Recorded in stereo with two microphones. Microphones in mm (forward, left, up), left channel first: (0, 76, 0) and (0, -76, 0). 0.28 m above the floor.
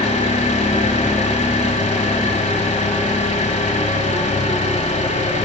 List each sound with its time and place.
0.0 s an engine running: 55° left (ahead or behind), 1.0 m